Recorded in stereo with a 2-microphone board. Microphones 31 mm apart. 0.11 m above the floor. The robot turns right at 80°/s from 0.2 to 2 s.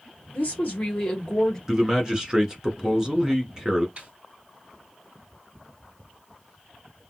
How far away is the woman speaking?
About 2 m.